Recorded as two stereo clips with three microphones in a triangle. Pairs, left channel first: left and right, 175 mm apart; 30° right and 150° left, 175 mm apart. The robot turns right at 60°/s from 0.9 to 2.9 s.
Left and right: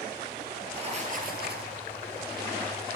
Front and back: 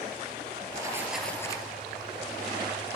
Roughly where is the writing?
Behind right.